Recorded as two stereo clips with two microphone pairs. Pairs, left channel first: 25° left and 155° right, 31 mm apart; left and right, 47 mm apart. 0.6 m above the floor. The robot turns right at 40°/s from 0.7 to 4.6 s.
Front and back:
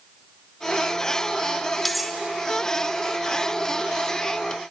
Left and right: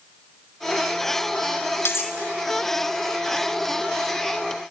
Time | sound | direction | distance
1.9 | cutlery clinking | 110° left | 0.6 m